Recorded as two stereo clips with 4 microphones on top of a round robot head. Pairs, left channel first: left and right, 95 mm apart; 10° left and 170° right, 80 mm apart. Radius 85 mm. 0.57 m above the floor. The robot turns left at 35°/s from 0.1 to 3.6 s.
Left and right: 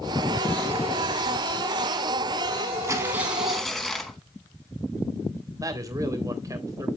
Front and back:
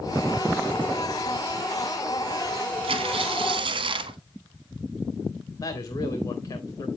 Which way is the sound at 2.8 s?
155° right.